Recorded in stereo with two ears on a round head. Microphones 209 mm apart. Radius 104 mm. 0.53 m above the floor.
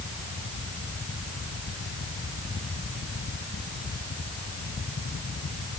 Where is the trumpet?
I don't hear a trumpet.